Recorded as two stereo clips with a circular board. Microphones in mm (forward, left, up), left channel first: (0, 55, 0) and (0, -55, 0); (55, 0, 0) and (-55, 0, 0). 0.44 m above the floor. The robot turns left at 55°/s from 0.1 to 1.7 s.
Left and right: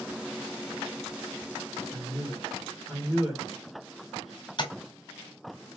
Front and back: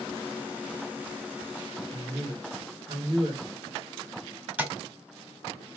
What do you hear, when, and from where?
1.9 s a man speaking: 170° right, 1.7 m
4.6 s tapping: 110° left, 1.2 m